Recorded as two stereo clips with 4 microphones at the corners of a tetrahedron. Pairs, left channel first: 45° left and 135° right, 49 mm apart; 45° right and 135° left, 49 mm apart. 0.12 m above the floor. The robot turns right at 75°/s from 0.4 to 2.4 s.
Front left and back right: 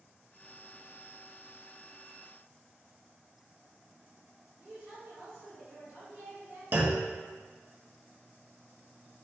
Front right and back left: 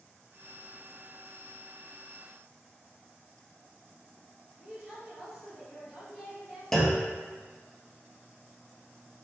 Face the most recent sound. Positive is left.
turn(degrees=-125)